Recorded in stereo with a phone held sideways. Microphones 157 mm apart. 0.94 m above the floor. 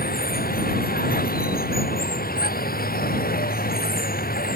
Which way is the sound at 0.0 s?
70° left (ahead or behind).